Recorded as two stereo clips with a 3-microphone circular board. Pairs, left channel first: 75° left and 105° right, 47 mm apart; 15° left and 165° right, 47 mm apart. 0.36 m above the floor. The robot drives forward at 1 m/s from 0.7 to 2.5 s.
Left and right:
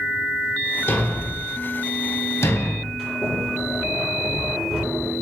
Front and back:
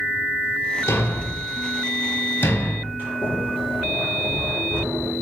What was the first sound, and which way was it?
A thud, 40° left.